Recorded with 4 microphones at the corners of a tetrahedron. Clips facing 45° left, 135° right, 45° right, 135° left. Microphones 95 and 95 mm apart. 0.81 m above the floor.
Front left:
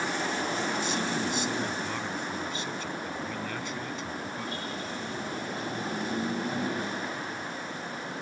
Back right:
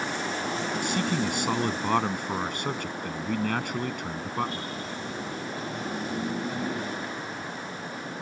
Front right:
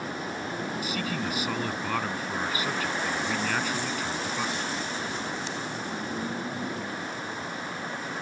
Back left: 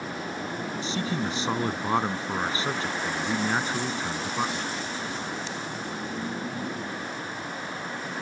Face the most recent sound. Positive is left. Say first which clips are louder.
# back right 3 dB, back left 2 dB
turn(degrees=-165)